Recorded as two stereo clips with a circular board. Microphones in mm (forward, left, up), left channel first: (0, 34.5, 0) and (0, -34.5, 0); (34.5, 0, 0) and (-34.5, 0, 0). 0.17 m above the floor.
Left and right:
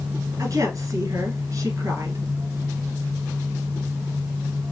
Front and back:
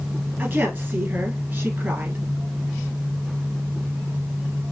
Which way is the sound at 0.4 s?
125° right.